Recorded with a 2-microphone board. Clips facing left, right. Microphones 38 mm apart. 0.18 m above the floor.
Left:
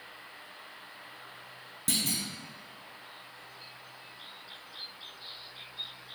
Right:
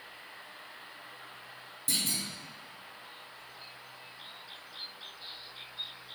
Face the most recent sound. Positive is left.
turn(degrees=70)  # may be behind; listen again after turning